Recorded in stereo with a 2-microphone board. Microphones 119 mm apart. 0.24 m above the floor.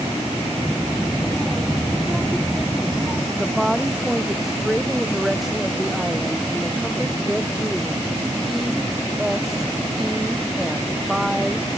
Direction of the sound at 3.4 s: Centre (ahead or behind).